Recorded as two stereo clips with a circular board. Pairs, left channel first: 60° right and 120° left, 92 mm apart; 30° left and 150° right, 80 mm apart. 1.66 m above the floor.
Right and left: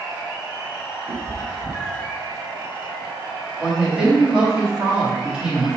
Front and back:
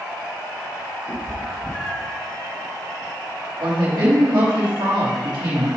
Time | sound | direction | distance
1.1 | a cat meowing | 100° left | 1.5 m
3.6 | a woman speaking | 160° right | 3.5 m